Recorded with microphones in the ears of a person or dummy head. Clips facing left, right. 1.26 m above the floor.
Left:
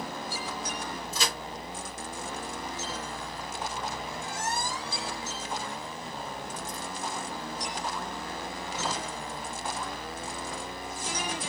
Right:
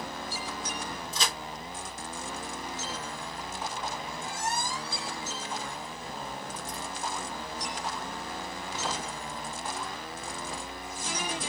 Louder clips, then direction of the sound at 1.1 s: Left 1 dB; 5° left (ahead or behind).